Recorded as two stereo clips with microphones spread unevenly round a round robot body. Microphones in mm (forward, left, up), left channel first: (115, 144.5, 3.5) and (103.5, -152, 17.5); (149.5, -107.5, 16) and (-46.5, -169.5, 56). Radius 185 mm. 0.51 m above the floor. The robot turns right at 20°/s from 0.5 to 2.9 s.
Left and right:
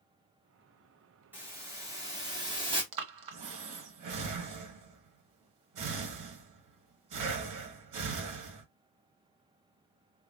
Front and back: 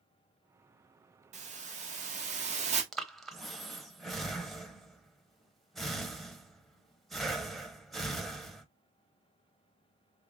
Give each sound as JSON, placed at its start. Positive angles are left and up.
{"t": 1.3, "sound": "a hiss", "azimuth_deg": -170, "distance_m": 1.1}
{"t": 2.9, "sound": "breathing", "azimuth_deg": -70, "distance_m": 1.1}